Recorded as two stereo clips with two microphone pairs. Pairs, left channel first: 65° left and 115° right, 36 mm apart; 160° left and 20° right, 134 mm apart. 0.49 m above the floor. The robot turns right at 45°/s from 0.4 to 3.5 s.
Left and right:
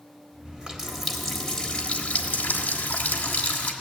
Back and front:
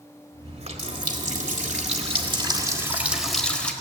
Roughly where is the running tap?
Ahead right.